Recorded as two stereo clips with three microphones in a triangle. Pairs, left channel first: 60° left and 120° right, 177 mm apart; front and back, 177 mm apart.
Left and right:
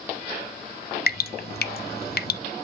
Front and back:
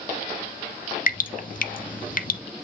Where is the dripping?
35° left, 0.6 m.